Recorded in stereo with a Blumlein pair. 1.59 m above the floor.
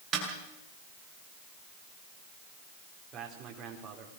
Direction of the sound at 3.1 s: 30° right.